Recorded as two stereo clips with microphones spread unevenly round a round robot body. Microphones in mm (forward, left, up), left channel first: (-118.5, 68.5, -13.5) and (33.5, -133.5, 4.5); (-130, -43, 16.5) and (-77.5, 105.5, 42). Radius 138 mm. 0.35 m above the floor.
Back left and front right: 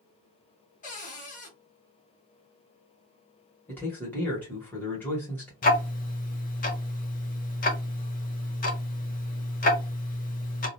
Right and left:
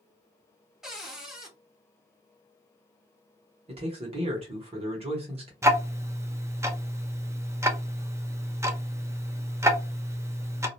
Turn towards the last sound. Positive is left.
turn(degrees=150)